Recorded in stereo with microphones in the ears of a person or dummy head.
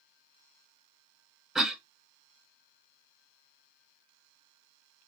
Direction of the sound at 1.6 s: 5° right (ahead or behind).